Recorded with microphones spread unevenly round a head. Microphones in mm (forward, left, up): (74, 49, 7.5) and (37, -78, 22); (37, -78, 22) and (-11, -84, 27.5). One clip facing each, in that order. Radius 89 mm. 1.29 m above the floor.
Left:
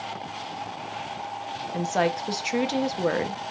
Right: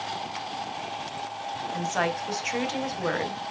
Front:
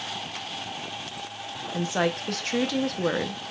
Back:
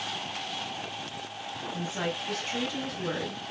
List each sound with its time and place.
1.7 s a woman speaking: 20° left, 0.9 m